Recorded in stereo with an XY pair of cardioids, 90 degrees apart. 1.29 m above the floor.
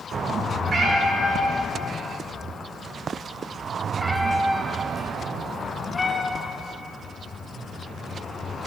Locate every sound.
0.7 s a cat meowing: 55° right, 2.5 m; by 6.8 s 45° left, 1.7 m